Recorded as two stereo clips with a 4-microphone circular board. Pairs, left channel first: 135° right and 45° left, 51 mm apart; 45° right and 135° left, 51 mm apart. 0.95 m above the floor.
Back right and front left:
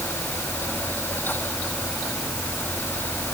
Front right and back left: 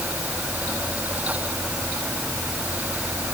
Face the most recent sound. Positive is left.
No sound to turn to.